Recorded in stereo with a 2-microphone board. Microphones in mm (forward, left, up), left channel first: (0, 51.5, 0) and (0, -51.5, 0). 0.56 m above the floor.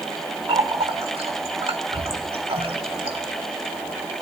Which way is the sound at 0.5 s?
65° right (ahead or behind).